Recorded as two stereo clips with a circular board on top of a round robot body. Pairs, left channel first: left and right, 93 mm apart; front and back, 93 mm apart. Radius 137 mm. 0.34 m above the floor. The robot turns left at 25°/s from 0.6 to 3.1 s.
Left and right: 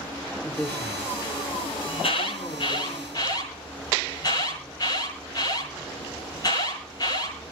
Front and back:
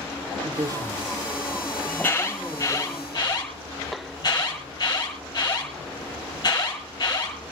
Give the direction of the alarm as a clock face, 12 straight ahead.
9 o'clock.